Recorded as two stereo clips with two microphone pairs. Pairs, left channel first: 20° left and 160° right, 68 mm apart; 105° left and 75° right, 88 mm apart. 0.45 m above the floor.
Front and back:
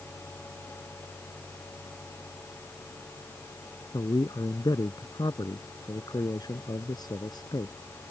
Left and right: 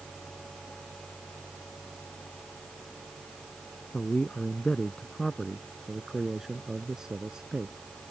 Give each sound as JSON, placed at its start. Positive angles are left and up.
{"t": 3.9, "sound": "a man speaking", "azimuth_deg": 30}